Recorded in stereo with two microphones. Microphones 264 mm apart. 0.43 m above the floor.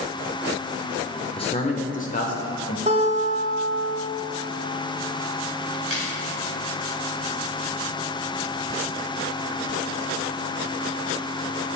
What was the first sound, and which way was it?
A man speaking, 20° left (ahead or behind).